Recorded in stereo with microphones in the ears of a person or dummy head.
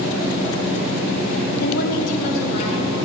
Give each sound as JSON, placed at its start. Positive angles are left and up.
{"t": 1.6, "sound": "a woman speaking", "side_deg": 65, "distance_m": 1.0}